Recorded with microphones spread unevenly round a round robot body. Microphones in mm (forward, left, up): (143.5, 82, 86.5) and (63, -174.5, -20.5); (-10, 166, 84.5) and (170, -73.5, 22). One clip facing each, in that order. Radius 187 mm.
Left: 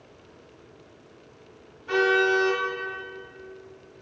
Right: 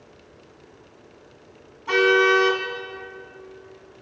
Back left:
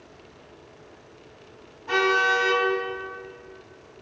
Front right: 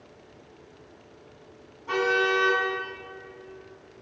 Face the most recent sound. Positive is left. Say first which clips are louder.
# right 4 dB, even
turn(degrees=-140)